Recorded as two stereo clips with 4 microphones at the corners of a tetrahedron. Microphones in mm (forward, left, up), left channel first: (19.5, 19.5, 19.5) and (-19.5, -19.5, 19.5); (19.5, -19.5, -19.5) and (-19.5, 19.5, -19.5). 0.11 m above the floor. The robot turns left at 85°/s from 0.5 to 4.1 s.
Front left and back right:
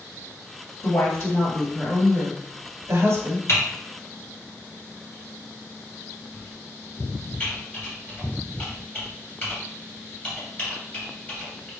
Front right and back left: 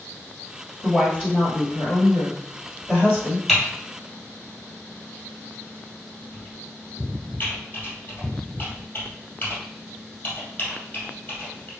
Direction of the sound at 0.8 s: 35° left.